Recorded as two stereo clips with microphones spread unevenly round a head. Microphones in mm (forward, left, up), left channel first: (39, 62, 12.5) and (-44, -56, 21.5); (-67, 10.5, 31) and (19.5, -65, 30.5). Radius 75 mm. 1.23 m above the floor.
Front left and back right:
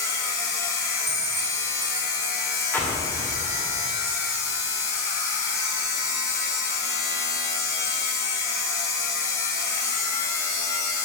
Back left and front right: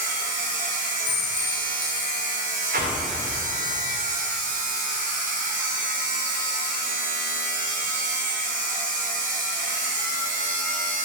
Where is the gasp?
I don't hear a gasp.